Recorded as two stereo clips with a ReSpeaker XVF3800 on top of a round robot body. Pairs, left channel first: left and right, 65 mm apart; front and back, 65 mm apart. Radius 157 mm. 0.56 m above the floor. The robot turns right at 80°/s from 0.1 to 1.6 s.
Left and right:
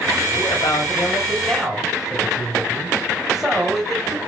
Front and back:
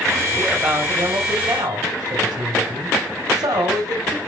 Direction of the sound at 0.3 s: 80° left.